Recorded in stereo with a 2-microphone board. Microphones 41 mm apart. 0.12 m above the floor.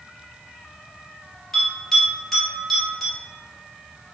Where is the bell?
5° left (ahead or behind), 1.7 m.